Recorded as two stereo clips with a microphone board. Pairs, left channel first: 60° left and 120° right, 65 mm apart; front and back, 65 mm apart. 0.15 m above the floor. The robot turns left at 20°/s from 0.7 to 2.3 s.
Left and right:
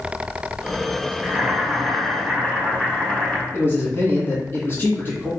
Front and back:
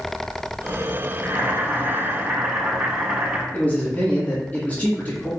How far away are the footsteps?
No footsteps in this recording.